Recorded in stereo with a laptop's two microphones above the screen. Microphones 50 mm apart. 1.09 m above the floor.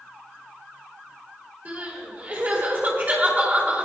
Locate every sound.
1.6 s crying: 30° right (ahead or behind), 3 m